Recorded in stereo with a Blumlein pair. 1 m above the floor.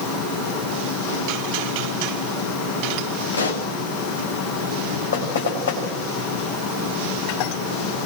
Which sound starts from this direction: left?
A pop, at 3.3 s.